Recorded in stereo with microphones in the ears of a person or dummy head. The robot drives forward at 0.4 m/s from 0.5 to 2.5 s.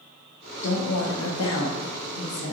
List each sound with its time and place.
0.6 s a woman speaking: 65° left (ahead or behind), 0.7 m; by 2.5 s 50° left (ahead or behind), 0.8 m